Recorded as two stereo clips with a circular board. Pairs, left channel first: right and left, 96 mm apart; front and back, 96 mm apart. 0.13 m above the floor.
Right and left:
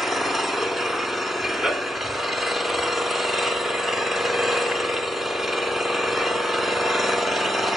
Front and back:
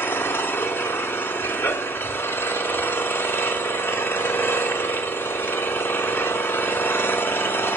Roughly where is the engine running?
Ahead.